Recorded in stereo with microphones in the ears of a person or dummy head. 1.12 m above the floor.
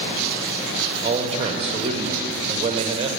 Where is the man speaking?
35° right (ahead or behind), 0.9 m.